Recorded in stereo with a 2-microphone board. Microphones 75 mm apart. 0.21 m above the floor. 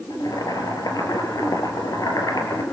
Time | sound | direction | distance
0.1 | boiling | 55° left (ahead or behind) | 4 m